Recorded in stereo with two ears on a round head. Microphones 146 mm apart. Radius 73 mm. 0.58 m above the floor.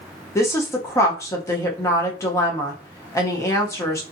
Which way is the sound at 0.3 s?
20° left (ahead or behind).